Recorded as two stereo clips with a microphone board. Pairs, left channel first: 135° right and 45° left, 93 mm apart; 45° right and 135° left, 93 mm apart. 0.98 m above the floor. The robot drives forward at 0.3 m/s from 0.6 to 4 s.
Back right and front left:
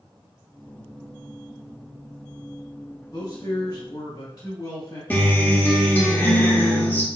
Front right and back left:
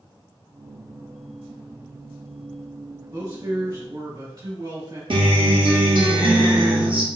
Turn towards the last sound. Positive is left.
turn(degrees=155)